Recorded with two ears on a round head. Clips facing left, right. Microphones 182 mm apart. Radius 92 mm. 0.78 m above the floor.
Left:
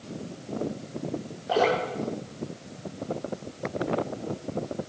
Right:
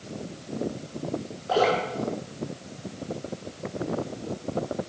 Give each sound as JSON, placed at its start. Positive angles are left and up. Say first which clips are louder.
{"t": 1.5, "sound": "dripping", "louder": "right 1 dB", "side_deg": 10, "distance_m": 6.5}